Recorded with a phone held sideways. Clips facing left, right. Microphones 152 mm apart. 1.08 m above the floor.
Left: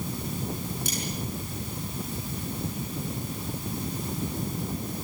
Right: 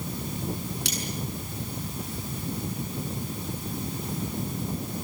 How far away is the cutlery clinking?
About 6.5 m.